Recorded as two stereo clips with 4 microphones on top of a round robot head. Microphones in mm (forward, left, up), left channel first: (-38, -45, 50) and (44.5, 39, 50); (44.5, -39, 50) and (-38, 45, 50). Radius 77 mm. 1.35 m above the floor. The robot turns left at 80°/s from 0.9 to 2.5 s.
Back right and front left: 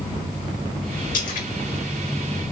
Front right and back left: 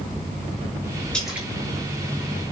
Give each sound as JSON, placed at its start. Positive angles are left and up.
{"t": 1.1, "sound": "a splash", "azimuth_deg": -130, "distance_m": 2.5}